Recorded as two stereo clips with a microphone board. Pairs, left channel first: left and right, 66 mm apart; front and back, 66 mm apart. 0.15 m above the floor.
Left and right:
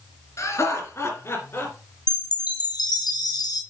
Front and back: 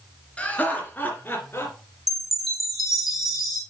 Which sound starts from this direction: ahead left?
Laughter, at 0.4 s.